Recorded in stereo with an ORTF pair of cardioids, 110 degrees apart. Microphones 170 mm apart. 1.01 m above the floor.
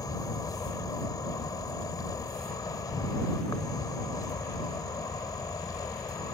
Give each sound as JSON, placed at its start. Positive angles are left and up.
{"t": 0.0, "sound": "an insect", "azimuth_deg": 20}